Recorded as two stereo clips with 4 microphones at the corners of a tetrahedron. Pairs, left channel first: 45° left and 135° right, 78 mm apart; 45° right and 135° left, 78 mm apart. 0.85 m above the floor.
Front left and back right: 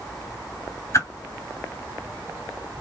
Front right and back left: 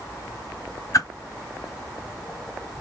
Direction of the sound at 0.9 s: Straight ahead.